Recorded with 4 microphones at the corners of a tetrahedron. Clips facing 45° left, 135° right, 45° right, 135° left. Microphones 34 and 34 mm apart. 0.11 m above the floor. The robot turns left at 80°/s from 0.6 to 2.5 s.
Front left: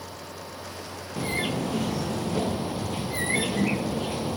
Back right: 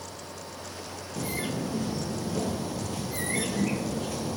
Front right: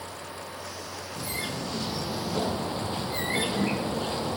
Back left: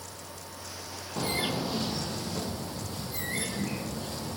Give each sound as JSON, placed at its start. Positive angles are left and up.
{"t": 1.2, "sound": "a bird", "azimuth_deg": 100, "distance_m": 0.7}